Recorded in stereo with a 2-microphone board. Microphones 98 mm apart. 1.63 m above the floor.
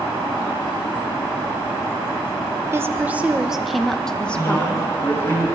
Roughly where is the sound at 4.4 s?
Left.